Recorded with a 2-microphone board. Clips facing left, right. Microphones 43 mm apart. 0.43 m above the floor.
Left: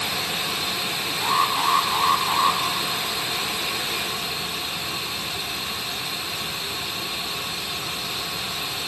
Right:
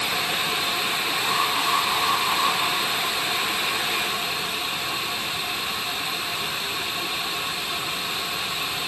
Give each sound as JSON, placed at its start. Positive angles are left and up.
{"t": 1.2, "sound": "an alarm", "side_deg": 25, "distance_m": 5.0}